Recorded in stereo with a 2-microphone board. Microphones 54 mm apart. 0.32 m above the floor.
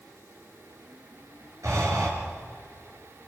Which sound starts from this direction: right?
Breathing, at 1.6 s.